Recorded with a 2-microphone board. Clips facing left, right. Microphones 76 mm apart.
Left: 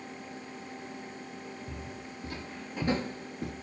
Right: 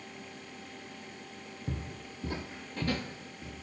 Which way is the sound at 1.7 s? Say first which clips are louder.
Right 1 dB; 45° right (ahead or behind).